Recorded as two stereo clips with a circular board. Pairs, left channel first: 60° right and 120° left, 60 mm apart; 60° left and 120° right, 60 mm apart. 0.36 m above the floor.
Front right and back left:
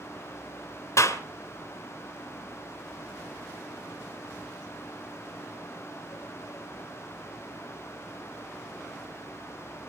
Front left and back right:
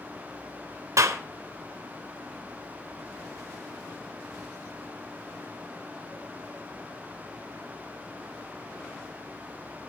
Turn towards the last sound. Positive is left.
turn(degrees=-90)